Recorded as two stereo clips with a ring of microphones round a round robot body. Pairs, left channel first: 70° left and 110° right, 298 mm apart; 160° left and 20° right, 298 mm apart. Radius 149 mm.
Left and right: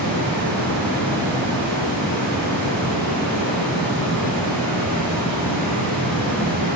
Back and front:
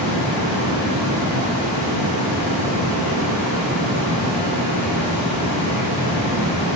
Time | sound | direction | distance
0.0 | running water | 150° left | 2 m